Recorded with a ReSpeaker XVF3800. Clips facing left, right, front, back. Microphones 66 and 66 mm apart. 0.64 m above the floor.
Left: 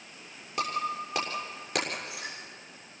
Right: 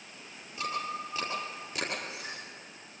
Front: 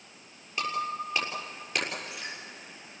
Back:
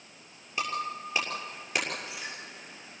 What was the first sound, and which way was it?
Breaking glass, 105° left.